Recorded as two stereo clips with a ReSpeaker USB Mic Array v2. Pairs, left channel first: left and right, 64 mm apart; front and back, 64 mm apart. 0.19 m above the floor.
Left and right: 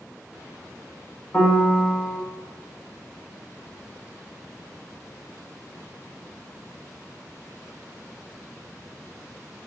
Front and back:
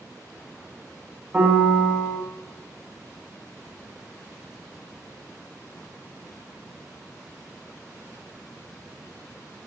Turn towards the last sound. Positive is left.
turn(degrees=135)